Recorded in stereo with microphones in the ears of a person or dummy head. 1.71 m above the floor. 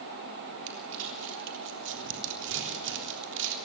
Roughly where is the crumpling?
Right.